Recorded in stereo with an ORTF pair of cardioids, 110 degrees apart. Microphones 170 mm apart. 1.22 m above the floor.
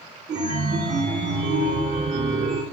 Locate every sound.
0.3 s a chime: 45° right, 2.5 m